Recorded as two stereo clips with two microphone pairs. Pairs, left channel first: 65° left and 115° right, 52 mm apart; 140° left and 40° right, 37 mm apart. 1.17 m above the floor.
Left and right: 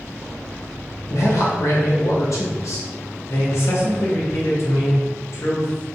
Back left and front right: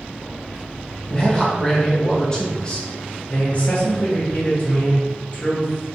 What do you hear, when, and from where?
1.1 s a man speaking: 75° left, 1.0 m
3.3 s a man speaking: 90° left, 1.1 m